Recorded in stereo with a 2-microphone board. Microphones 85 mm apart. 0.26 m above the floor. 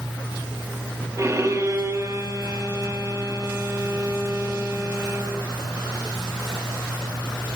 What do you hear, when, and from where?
1.2 s a violin: 30° right (ahead or behind), 8.5 m